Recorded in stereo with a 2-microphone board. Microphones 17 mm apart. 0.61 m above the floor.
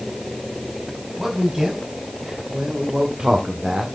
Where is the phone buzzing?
No phone buzzing in this recording.